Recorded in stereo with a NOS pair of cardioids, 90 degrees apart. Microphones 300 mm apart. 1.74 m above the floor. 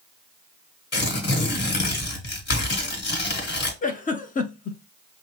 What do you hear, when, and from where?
0.9 s tearing paper: 35° left, 1.8 m
3.8 s a giggle: 30° left, 0.8 m